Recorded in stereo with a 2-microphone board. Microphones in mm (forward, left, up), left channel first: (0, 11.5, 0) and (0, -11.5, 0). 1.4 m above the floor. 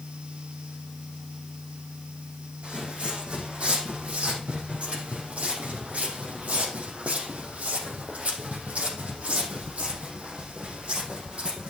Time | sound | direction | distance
2.6 | footsteps | 55° right (ahead or behind) | 5 m